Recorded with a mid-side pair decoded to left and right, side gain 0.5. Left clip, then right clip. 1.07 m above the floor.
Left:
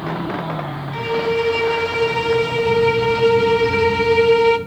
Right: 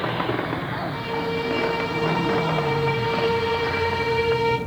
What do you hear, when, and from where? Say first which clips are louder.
0.9 s a violin: left 10 dB; 55° left, 0.9 m